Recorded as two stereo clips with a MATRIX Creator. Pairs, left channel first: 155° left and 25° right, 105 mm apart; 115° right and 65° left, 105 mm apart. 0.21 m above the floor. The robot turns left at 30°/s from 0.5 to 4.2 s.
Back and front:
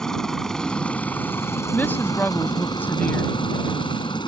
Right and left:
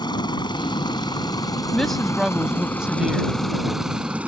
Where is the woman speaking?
170° left; by 3.3 s 125° left.